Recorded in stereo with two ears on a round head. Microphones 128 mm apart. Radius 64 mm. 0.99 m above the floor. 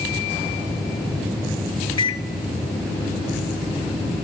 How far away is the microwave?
About 0.5 m.